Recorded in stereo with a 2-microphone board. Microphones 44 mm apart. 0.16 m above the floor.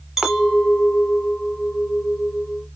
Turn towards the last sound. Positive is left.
turn(degrees=-10)  # may be behind; listen again after turning